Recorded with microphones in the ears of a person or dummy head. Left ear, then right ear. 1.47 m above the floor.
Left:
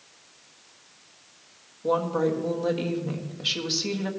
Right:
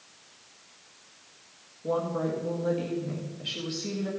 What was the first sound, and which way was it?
A woman speaking, 45° left (ahead or behind).